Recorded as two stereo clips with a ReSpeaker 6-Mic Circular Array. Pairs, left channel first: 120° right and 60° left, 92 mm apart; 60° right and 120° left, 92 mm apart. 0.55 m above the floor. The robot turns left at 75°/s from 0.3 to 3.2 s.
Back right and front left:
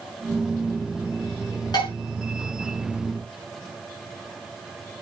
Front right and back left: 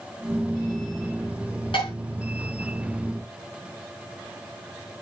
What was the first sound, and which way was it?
Dishes clattering, 80° right.